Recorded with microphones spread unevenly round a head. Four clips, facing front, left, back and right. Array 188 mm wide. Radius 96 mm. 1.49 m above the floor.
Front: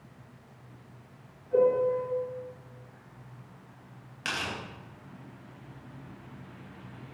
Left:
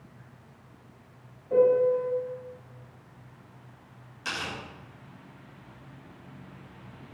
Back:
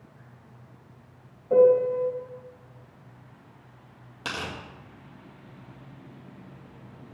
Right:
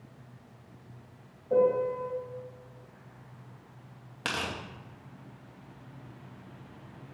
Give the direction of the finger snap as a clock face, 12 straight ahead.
No finger snap in this recording.